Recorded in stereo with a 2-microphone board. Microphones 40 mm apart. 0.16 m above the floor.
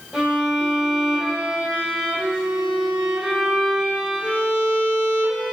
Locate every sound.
0.1 s a violin: 15° right (ahead or behind), 3.5 m